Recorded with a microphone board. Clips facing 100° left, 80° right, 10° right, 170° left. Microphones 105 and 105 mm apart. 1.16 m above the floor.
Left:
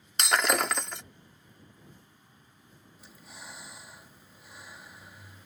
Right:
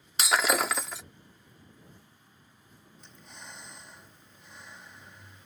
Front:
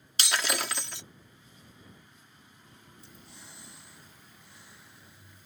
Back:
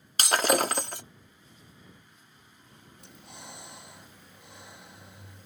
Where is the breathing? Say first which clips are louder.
Left 1 dB, back 6 dB; 175° right.